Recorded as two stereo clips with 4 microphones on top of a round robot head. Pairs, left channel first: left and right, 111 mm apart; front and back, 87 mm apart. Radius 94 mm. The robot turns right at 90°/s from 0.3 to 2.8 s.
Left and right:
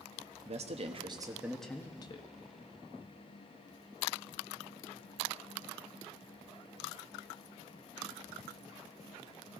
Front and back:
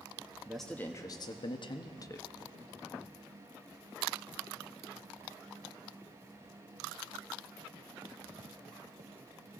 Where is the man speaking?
100° right, 1.0 m; by 2.3 s 65° left, 1.0 m.